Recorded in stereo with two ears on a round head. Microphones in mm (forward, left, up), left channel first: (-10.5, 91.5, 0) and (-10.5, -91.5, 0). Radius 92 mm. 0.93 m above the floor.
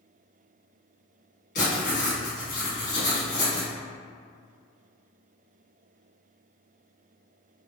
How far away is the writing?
About 1.8 m.